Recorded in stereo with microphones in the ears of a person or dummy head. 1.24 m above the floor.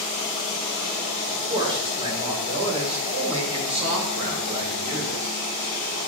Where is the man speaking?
25° right (ahead or behind), 4 m; by 5.3 s 45° right (ahead or behind), 5 m.